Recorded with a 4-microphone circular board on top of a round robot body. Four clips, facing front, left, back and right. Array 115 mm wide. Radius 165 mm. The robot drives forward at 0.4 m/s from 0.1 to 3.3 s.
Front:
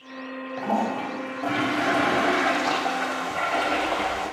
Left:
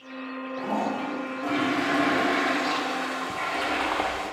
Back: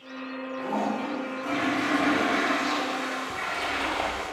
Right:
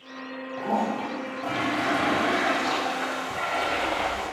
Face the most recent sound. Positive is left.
turn(degrees=110)